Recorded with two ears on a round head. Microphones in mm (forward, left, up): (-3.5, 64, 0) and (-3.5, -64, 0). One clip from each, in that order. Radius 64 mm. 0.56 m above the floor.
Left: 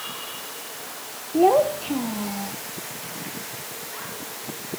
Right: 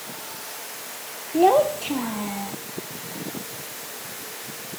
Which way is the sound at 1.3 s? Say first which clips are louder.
Even; 35° right (ahead or behind).